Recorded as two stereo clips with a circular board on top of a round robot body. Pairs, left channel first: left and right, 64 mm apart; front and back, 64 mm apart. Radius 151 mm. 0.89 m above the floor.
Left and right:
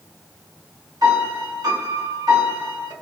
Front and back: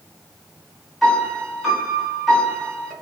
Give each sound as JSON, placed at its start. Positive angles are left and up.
{"t": 1.0, "sound": "a piano", "azimuth_deg": -85, "distance_m": 2.0}